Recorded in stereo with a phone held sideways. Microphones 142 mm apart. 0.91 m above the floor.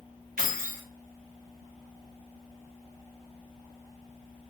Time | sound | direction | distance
0.4 | keys jangling | 80° right | 1.0 m